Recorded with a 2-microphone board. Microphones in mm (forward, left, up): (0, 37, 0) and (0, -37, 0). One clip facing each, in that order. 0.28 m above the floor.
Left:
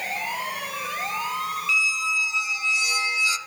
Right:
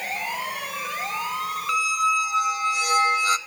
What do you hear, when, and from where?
1.7 s a squeak: 50° right (ahead or behind), 0.5 m